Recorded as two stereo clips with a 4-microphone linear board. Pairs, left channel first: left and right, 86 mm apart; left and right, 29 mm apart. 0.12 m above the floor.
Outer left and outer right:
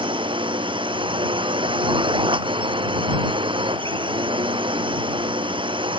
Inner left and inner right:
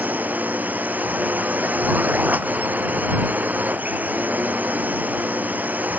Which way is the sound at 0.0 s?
80° right.